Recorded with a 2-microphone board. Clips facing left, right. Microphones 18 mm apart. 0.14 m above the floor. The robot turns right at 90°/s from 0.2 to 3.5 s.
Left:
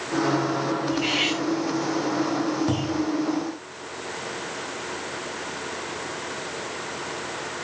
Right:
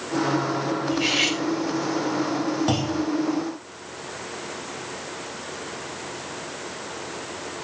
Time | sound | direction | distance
0.9 | cutlery clinking | 135° right | 3.5 m
2.7 | a clunk | 130° right | 2.5 m